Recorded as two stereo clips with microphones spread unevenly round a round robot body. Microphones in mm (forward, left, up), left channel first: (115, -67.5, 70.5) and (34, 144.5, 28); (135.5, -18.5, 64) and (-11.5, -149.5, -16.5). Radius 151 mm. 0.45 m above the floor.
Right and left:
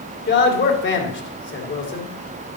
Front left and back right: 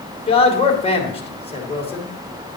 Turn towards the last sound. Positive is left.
turn(degrees=-30)